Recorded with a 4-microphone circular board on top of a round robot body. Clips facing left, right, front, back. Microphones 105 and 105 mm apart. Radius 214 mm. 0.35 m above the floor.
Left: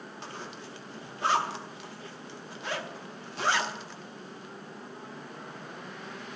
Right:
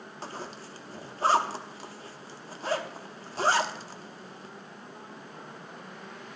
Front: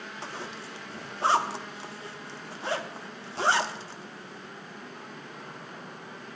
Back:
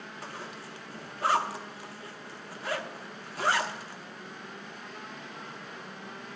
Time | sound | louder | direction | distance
0.2 | a zipper | right 4 dB, front 3 dB | 50° right | 1.2 m